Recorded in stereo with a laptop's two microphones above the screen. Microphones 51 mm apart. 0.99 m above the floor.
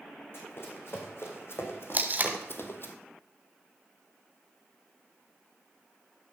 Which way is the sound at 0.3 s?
50° left (ahead or behind).